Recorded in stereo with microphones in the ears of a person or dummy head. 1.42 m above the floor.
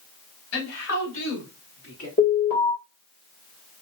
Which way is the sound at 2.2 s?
40° left (ahead or behind).